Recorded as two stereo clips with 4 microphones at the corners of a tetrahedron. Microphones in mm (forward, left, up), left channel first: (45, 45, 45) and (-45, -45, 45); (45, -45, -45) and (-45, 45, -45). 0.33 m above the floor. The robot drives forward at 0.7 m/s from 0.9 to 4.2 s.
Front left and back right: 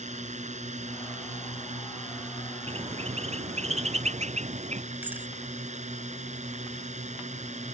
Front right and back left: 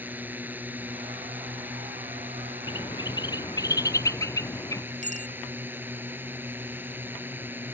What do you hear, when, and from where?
0.0 s a drone: 150° right
2.7 s a bird: 95° right; by 4.8 s 110° right
5.0 s a bicycle bell: 150° left